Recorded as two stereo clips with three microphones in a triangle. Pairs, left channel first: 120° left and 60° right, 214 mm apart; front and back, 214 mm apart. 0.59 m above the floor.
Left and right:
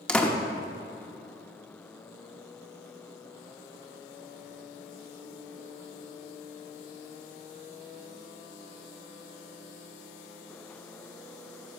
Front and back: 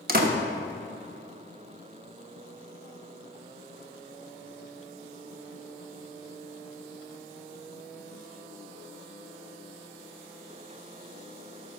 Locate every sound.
0.1 s a door slam: 155° right, 1.0 m